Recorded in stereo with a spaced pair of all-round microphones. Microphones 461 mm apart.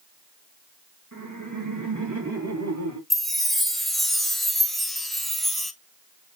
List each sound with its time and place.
1.1 s laughter: 40° right (ahead or behind), 1.7 m; by 3.0 s 35° right (ahead or behind), 3 m
3.1 s a chime: centre (ahead or behind), 0.7 m